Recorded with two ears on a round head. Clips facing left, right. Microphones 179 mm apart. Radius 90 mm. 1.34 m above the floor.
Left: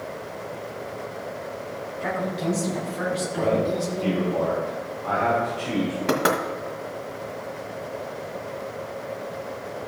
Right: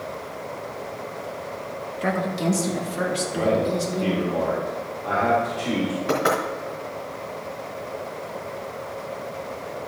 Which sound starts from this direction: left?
Knocking, at 6.1 s.